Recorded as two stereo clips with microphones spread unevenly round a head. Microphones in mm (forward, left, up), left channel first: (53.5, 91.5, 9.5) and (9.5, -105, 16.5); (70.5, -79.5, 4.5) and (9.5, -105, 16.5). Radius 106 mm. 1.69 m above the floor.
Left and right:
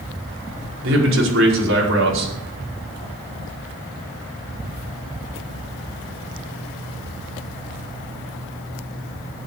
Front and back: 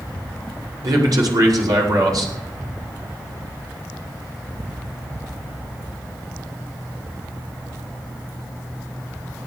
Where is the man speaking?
140° right, 5.5 m.